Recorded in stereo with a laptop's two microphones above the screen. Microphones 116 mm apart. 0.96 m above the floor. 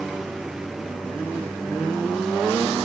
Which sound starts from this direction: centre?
A lawn mower, at 0.0 s.